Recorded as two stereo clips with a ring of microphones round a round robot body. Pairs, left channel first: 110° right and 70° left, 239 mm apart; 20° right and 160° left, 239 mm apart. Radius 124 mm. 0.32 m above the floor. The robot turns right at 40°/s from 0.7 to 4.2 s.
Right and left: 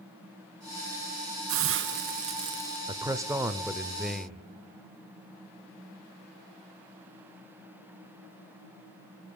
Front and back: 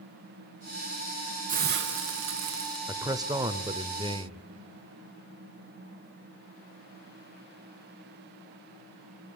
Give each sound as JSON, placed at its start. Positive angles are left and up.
{"t": 1.5, "sound": "a hiss", "azimuth_deg": 100, "distance_m": 1.5}
{"t": 2.9, "sound": "a man speaking", "azimuth_deg": 105, "distance_m": 1.0}